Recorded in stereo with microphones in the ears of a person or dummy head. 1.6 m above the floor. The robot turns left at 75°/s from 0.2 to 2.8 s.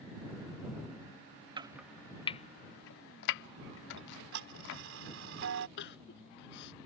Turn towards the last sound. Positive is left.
turn(degrees=65)  # may be behind; listen again after turning